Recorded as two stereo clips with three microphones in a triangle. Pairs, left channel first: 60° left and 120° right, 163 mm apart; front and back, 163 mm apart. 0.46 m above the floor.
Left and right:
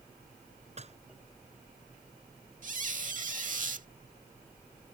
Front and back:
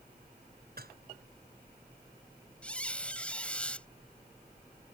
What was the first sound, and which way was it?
Dishes clattering, 165° right.